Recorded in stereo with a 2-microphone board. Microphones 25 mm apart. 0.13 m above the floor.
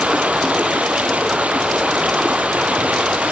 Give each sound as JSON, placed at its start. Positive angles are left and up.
{"t": 0.0, "sound": "running water", "side_deg": -75, "distance_m": 1.2}